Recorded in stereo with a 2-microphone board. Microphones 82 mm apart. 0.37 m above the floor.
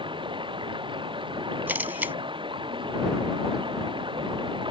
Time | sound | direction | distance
0.0 | running water | 85° right | ?
1.7 | a camera shutter | 25° right (ahead or behind) | ?